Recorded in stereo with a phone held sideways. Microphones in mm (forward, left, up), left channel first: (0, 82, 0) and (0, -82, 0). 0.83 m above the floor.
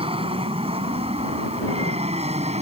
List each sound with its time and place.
0.0 s an aircraft: 35° right (ahead or behind); by 2.6 s 40° right (ahead or behind)